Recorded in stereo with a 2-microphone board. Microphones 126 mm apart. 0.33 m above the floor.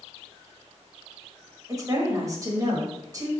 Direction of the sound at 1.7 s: 30° right (ahead or behind).